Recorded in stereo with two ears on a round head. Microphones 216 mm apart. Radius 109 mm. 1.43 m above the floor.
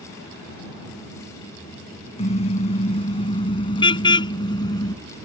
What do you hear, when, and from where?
2.2 s a car horn: 30° left (ahead or behind); by 4.9 s 20° left (ahead or behind)